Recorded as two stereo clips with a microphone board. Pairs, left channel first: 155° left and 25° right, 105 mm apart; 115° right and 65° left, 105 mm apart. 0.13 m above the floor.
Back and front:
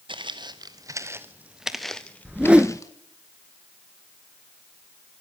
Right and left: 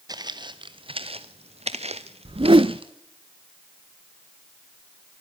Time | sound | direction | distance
0.1 | footsteps | 15° left | 1.8 m
2.2 | a whoosh | 55° left | 0.5 m